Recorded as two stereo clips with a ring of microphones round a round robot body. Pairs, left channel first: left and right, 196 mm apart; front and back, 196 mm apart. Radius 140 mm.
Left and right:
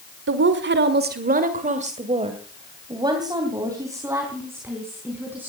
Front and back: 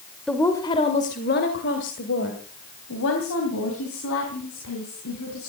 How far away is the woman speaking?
About 1.5 m.